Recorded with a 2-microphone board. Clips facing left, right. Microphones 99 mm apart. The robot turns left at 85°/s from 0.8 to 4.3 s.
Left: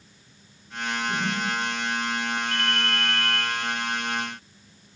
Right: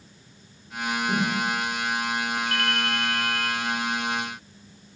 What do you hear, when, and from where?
1.1 s a whoosh: 50° right (ahead or behind), 3.5 m; by 1.4 s 75° right (ahead or behind), 3.5 m
2.5 s a ringtone: 160° left, 1.7 m; by 3.5 s 75° left, 1.7 m